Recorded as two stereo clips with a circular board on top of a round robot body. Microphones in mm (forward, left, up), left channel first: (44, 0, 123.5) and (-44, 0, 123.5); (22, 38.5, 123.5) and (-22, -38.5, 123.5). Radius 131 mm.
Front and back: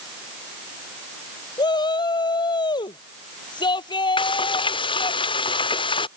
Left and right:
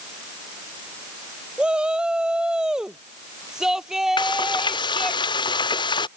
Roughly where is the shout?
Ahead right.